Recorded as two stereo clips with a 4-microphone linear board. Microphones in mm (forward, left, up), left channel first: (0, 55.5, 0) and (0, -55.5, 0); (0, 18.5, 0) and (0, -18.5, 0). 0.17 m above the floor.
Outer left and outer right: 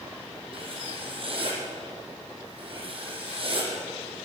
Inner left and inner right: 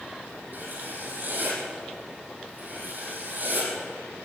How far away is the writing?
About 6 m.